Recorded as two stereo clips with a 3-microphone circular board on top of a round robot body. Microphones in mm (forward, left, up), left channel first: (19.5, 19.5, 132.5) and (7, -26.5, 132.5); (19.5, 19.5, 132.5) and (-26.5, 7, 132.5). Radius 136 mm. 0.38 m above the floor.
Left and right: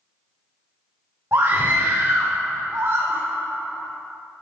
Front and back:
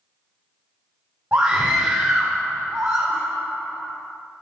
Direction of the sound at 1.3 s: 120° right.